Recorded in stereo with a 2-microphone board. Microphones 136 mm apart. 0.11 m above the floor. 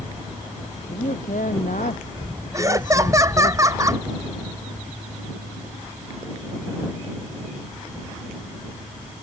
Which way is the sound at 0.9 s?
75° left (ahead or behind).